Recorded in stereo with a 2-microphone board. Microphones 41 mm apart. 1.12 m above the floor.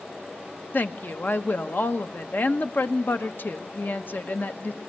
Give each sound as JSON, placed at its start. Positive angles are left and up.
{"t": 0.7, "sound": "a woman speaking", "side_deg": 50, "distance_m": 1.0}